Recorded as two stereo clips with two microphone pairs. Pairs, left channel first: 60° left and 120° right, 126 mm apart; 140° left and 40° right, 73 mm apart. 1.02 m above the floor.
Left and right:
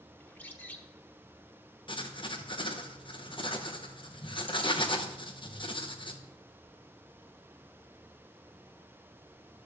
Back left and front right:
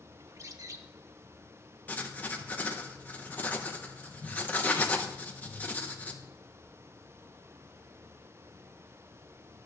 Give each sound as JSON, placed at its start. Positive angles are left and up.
{"t": 0.2, "sound": "a bird", "azimuth_deg": -15, "distance_m": 0.8}
{"t": 1.9, "sound": "writing", "azimuth_deg": 80, "distance_m": 1.0}